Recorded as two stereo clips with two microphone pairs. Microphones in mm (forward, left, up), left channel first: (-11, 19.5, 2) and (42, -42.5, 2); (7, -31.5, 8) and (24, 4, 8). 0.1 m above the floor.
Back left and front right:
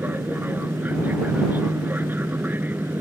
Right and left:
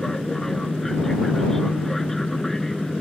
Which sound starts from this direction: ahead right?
An aircraft, at 0.0 s.